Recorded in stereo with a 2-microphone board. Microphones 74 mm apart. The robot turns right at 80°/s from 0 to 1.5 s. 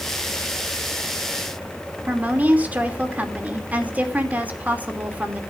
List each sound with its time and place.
2.1 s a woman speaking: 20° right (ahead or behind), 3 m